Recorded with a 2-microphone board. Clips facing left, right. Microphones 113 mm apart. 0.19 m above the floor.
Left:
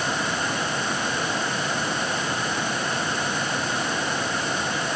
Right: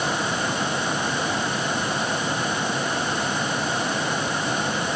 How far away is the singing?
No singing in this recording.